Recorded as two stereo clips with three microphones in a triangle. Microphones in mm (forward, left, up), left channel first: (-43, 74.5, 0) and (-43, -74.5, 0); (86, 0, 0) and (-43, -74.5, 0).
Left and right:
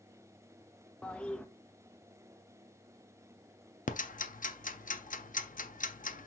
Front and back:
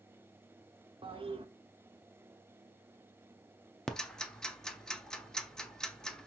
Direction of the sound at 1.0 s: 170° left.